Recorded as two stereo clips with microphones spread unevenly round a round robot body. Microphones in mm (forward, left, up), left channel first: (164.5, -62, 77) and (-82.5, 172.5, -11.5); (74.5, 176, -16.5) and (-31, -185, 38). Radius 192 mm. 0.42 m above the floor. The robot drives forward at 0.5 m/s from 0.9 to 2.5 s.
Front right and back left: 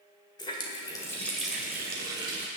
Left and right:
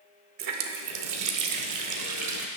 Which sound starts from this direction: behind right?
A running tap, at 0.4 s.